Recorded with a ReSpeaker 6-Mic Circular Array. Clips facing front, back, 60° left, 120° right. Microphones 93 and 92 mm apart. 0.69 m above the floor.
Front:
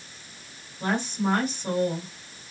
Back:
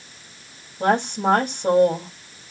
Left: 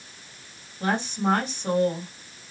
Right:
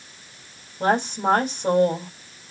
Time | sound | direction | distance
0.8 | a woman speaking | 160° right | 4 m